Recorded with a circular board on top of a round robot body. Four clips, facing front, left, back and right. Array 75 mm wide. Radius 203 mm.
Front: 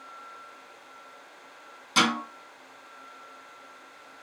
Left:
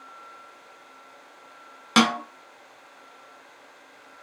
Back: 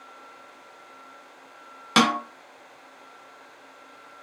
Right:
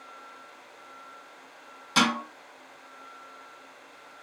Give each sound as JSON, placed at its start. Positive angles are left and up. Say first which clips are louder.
{"t": 2.0, "sound": "a snare drum", "louder": "left 4 dB, back 4 dB", "azimuth_deg": 135, "distance_m": 0.7}